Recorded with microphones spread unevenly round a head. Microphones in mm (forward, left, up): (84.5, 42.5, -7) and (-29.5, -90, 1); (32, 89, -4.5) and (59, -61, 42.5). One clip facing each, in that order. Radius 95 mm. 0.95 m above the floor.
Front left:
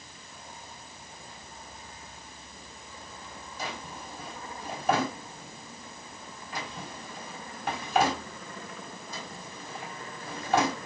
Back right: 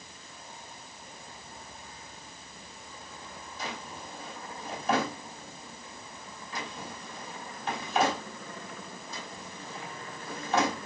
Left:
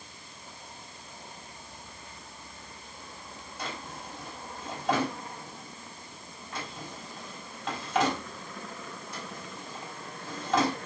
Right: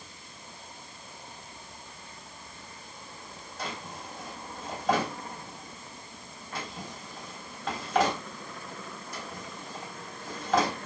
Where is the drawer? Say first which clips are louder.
Front left 1 dB, right 1 dB; 10° left, 3.5 m.